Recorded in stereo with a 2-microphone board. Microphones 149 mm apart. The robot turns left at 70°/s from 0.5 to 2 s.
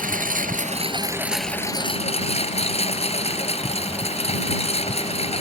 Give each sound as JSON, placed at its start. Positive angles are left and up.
{"t": 0.0, "sound": "a lawn mower", "azimuth_deg": -120}